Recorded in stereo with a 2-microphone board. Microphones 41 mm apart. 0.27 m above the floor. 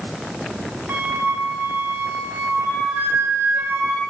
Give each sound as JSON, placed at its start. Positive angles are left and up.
{"t": 0.9, "sound": "a flute", "side_deg": -80, "distance_m": 1.0}